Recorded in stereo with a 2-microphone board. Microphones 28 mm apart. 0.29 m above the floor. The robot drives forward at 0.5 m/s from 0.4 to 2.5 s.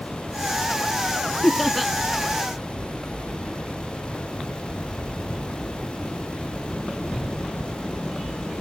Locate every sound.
1.4 s laughter: centre (ahead or behind)